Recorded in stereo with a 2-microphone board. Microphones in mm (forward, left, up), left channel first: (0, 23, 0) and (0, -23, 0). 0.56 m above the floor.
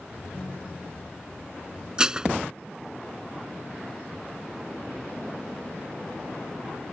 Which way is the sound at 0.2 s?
40° left (ahead or behind).